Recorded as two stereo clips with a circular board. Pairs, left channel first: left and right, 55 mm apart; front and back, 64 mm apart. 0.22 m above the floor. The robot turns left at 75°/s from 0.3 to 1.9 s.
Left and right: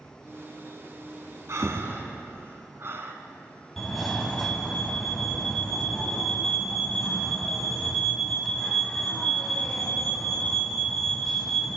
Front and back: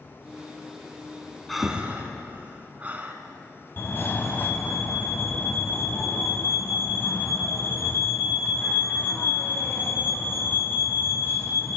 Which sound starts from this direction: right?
Breathing, at 1.5 s.